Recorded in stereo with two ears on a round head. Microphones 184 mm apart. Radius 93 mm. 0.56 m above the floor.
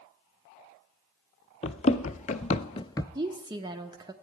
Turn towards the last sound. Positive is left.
turn(degrees=-20)  # may be behind; listen again after turning